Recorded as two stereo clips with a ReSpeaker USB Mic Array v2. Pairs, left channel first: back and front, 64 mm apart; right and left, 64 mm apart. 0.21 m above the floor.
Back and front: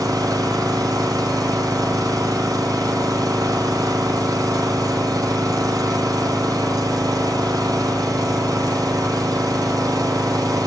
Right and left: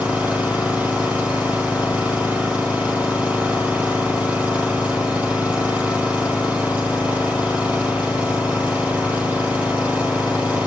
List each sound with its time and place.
0.0 s an engine running: 20° left, 5.5 m